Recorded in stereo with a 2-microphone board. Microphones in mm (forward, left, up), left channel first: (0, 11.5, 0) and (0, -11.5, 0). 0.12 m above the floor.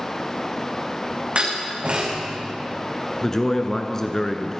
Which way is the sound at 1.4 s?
50° right (ahead or behind).